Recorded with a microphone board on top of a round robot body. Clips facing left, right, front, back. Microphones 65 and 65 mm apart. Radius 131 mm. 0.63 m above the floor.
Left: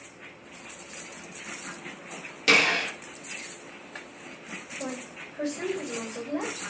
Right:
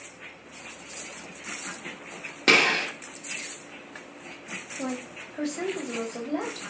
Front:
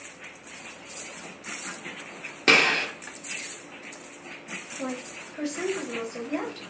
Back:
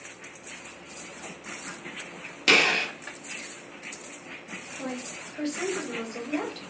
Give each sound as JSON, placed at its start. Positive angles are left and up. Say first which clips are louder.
{"t": 2.5, "sound": "a gunshot", "louder": "right 1 dB, front 1 dB", "azimuth_deg": -50, "distance_m": 1.4}
{"t": 4.8, "sound": "a woman speaking", "louder": "right 4 dB, front 1 dB", "azimuth_deg": -75, "distance_m": 1.7}